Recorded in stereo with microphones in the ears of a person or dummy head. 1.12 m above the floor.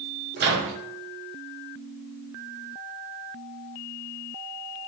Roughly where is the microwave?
Right.